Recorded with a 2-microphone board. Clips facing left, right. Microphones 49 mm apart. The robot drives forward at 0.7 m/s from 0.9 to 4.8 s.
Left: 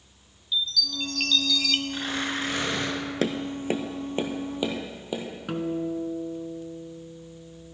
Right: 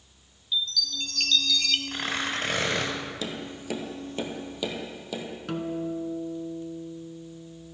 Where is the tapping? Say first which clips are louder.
Left 7 dB; 55° left (ahead or behind), 0.6 m; by 5.2 s 20° left (ahead or behind), 1.6 m.